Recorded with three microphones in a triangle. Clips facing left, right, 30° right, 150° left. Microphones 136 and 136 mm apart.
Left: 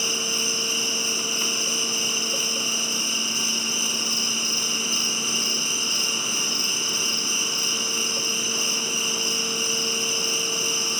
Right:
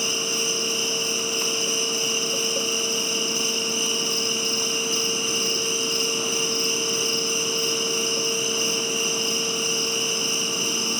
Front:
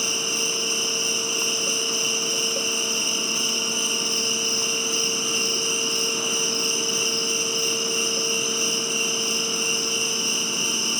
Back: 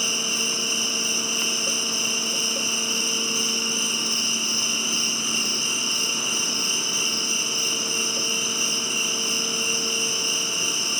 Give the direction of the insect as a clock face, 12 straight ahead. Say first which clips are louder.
Right 3 dB, front 1 dB; 8 o'clock.